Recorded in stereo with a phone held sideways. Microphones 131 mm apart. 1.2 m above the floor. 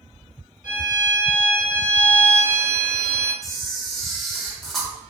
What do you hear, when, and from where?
0.6 s a violin: 70° left (ahead or behind), 1.2 m
3.4 s a camera shutter: centre (ahead or behind), 0.6 m